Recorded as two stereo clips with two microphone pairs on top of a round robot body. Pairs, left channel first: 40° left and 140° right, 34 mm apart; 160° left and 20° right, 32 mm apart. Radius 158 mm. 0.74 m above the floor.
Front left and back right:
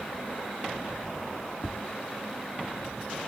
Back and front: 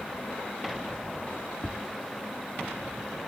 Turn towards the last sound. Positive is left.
turn(degrees=0)